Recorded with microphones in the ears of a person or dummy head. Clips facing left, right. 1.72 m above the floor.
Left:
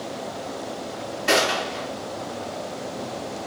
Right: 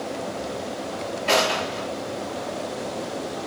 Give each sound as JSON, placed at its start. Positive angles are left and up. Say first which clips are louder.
{"t": 1.3, "sound": "a gunshot", "louder": "even", "side_deg": 20, "distance_m": 3.0}